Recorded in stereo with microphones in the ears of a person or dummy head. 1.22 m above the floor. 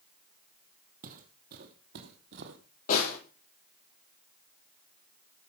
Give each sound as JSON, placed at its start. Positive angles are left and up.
{"t": 1.0, "sound": "footsteps", "side_deg": -50, "distance_m": 2.5}
{"t": 2.9, "sound": "a snare drum", "side_deg": 55, "distance_m": 8.0}